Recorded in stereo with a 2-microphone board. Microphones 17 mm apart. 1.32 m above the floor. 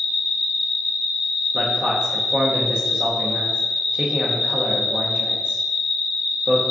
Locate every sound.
0.0 s an insect: 55° right (ahead or behind), 1.0 m
1.5 s a man speaking: 55° right (ahead or behind), 0.7 m